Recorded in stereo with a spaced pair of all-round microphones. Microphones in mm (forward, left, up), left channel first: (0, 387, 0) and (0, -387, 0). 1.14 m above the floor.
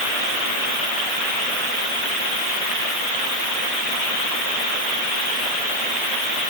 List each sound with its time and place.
Only background noise.